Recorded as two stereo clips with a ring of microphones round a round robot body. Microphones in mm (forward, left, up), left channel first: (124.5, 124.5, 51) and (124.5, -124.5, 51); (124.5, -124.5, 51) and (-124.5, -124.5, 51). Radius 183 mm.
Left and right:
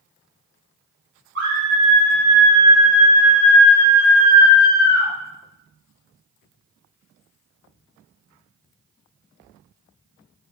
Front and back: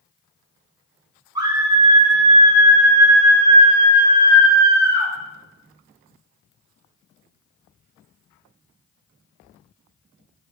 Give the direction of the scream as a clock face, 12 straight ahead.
4 o'clock.